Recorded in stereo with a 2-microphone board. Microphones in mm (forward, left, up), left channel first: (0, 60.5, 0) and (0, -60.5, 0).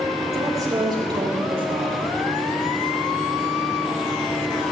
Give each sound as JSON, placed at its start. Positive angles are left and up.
{"t": 0.3, "sound": "a woman speaking", "side_deg": -25, "distance_m": 3.0}